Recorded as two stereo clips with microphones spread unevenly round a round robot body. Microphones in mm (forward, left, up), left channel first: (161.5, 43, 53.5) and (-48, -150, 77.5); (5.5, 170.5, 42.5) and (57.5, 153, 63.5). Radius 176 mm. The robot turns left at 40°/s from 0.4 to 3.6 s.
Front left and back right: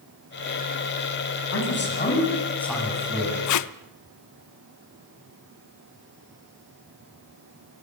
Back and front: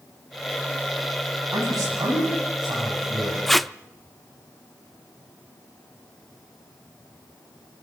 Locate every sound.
1.5 s a man speaking: 5° left, 9.5 m; by 3.4 s 70° right, 9.5 m
3.5 s tape being pulled: 55° left, 0.6 m; by 3.7 s 50° left, 0.6 m